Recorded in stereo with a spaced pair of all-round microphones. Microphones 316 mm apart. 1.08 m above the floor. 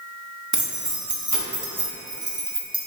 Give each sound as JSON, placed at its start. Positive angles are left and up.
{"t": 0.5, "sound": "keys jangling", "side_deg": -65, "distance_m": 0.7}